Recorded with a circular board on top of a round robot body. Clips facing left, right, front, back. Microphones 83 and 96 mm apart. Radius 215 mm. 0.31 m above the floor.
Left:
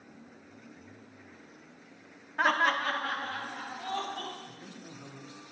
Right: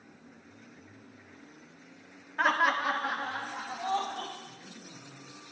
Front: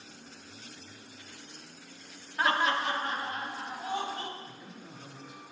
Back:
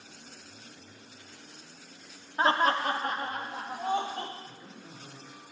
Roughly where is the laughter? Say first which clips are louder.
Even, back 3 dB; behind.